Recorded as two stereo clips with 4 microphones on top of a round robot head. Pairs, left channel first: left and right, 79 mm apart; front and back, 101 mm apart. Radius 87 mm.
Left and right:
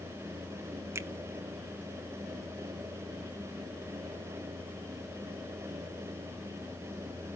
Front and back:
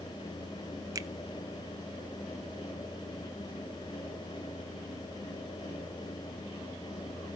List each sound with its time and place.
0.9 s a finger snap: 130° right, 0.8 m